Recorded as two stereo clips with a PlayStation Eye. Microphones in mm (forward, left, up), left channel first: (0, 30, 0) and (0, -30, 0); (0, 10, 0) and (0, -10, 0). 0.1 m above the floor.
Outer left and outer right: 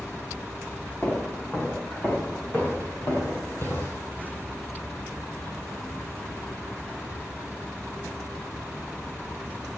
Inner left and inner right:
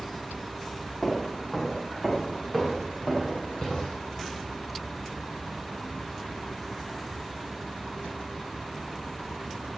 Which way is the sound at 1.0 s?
25° left (ahead or behind).